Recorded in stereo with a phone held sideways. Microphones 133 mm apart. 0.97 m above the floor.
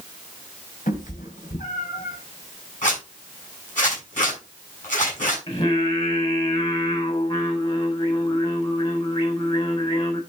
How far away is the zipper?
About 7 m.